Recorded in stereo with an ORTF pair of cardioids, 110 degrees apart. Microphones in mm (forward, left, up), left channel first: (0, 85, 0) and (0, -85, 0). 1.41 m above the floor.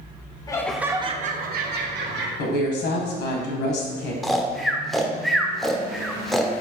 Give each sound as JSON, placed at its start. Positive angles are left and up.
{"t": 0.5, "sound": "laughter", "azimuth_deg": 20, "distance_m": 0.6}
{"t": 2.4, "sound": "a woman speaking", "azimuth_deg": 70, "distance_m": 1.4}
{"t": 4.2, "sound": "snoring", "azimuth_deg": 0, "distance_m": 0.5}